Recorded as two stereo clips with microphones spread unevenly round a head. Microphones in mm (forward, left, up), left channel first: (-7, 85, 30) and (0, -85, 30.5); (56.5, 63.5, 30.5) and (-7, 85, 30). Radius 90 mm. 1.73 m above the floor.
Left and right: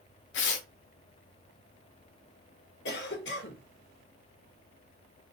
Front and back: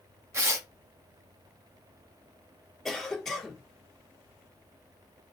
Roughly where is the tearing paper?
Behind left.